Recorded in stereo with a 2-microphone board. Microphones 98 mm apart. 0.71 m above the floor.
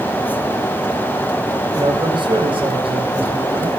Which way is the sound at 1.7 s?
50° right (ahead or behind).